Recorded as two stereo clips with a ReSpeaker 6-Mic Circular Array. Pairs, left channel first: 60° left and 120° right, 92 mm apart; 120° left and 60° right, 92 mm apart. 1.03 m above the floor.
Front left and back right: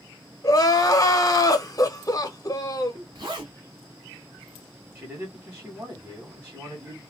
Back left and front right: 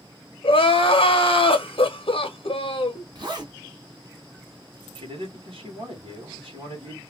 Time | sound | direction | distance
0.4 | crying | 110° left | 0.8 m
3.1 | a zipper | 90° right | 1.6 m
5.0 | a man speaking | 55° right | 1.9 m